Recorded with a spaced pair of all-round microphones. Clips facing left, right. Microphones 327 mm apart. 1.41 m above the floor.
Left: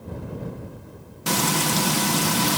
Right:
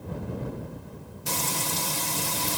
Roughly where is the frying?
Left.